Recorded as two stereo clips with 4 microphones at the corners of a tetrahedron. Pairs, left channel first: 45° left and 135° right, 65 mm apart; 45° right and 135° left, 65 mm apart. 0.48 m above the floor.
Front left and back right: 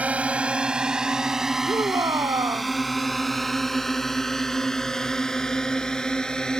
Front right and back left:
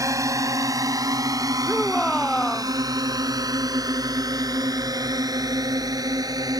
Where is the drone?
155° left; by 6.6 s 125° left.